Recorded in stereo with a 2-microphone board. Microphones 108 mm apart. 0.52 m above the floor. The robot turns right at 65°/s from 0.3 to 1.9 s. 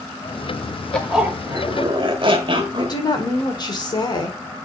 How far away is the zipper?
About 1.2 m.